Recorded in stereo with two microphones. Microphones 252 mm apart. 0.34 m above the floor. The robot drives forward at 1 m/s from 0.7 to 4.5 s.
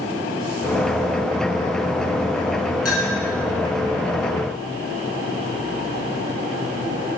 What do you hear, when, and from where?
2.9 s a clink: 65° left (ahead or behind), 5 m